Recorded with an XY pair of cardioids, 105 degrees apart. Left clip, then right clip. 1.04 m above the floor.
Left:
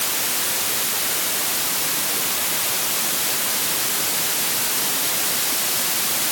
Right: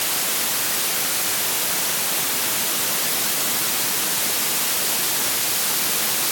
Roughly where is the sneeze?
I don't hear a sneeze.